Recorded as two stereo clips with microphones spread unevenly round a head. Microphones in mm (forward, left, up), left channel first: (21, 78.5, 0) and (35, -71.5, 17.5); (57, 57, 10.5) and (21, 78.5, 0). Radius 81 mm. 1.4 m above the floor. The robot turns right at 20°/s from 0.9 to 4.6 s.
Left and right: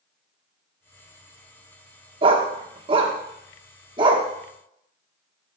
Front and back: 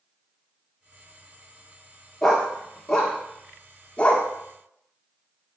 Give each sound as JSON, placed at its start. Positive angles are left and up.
{"t": 2.2, "sound": "a dog barking", "azimuth_deg": -100, "distance_m": 1.1}